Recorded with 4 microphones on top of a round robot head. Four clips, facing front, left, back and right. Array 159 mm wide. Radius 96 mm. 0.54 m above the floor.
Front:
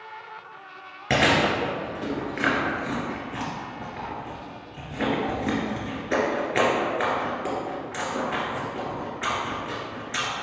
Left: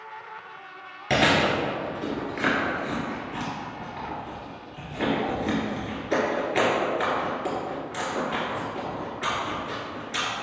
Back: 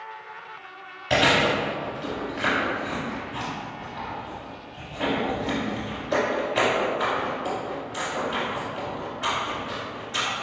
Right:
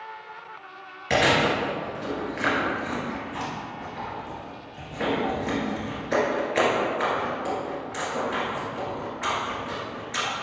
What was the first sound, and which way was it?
Chewing, 25° left.